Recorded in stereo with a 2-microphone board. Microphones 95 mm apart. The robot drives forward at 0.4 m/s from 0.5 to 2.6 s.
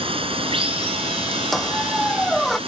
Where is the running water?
80° right; by 2.7 s 85° right.